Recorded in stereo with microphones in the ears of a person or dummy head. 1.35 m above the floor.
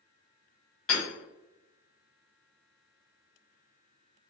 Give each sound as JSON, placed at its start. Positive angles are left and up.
{"t": 0.9, "sound": "hammering", "side_deg": 0, "distance_m": 1.9}